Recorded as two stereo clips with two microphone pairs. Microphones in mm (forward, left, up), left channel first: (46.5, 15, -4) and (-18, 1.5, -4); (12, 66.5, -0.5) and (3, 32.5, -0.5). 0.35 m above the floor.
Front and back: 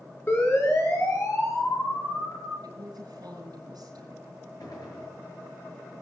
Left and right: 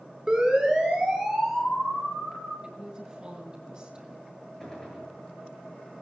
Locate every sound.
0.3 s a siren: 30° right, 4.5 m; by 2.5 s 10° right, 7 m
2.6 s a woman speaking: 165° right, 5 m
4.6 s a gunshot: straight ahead, 6 m